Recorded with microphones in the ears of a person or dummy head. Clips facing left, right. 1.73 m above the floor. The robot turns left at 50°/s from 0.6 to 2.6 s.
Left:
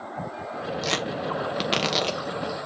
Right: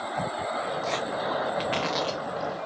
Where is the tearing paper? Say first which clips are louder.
Left 1 dB; 75° left (ahead or behind), 1.2 m; by 2.2 s 30° left (ahead or behind), 1.2 m.